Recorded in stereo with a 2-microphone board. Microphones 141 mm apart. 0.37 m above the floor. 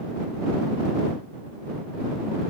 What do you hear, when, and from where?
Only background noise.